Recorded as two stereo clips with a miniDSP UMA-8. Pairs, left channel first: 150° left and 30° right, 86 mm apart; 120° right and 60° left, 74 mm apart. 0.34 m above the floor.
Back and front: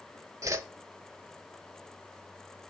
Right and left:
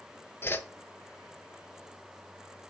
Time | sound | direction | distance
0.4 | a whoosh | 70° right | 0.7 m